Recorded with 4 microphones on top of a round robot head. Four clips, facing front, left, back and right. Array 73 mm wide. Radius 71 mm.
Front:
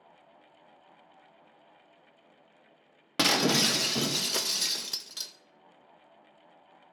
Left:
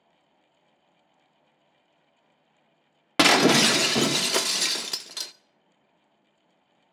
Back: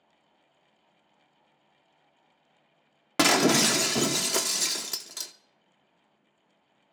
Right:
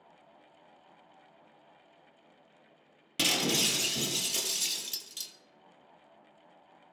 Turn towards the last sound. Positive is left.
turn(degrees=100)